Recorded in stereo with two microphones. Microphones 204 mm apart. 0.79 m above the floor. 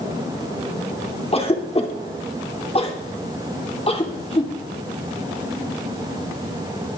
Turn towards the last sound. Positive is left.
turn(degrees=30)  # may be behind; listen again after turning